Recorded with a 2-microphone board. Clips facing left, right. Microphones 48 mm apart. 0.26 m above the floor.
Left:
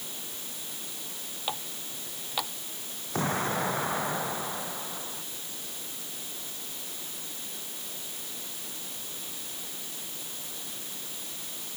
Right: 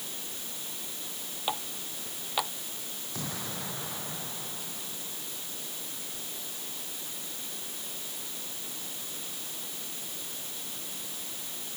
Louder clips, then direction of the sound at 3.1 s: Left 11 dB; 45° left (ahead or behind).